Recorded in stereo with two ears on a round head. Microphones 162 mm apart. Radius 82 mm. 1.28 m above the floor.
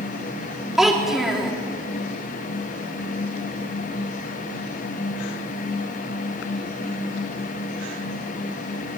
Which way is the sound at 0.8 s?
5° right (ahead or behind).